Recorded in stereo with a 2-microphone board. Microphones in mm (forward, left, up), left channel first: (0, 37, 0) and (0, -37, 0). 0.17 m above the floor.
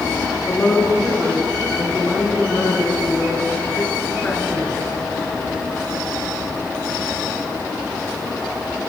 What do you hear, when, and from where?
0.5 s a woman speaking: 15° left (ahead or behind), 2 m